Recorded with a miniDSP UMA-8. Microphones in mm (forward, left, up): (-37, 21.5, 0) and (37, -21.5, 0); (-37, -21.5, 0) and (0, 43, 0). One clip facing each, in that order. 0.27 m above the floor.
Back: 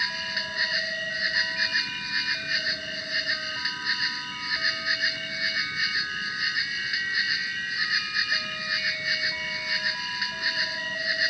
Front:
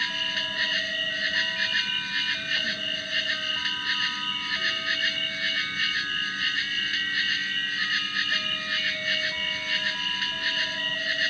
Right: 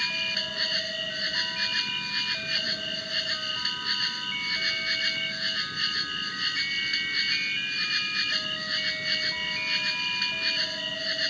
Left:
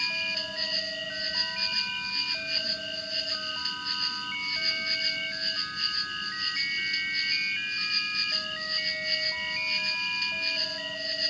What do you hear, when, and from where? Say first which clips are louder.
0.0 s an insect: even, right 2 dB; 135° right